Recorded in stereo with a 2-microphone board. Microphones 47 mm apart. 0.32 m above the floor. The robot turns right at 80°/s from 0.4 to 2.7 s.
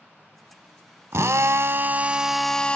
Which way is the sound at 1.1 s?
105° right.